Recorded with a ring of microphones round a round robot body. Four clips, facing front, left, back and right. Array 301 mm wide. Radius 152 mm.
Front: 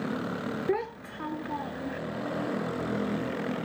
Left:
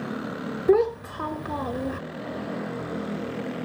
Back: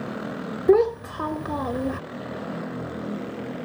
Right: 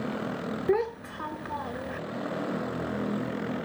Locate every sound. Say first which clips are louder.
0.7 s a child speaking: left 7 dB, back 15 dB; 150° left